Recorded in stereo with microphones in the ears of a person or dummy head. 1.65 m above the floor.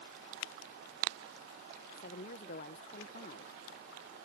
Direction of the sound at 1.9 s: 30° left (ahead or behind).